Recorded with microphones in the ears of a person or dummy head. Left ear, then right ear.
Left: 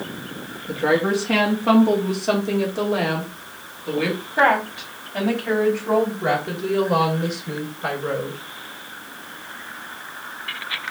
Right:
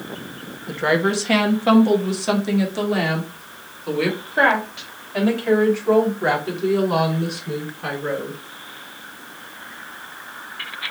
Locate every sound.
0.7 s a woman speaking: 60° right (ahead or behind), 0.9 m; by 8.4 s 75° right (ahead or behind), 4.5 m